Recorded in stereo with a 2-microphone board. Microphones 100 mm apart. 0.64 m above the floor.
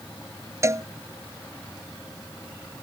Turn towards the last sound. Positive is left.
turn(degrees=-30)  # may be behind; listen again after turning